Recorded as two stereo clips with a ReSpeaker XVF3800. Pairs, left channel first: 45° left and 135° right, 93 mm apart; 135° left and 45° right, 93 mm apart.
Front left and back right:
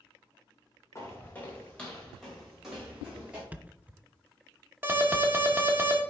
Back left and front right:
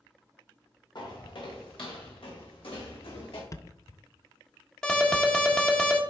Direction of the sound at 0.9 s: 100° left.